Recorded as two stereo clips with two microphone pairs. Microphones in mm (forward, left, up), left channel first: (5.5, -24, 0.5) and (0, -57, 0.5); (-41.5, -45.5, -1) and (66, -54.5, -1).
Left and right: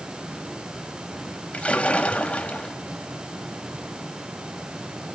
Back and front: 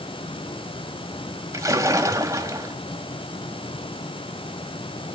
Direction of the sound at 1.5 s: 45° left.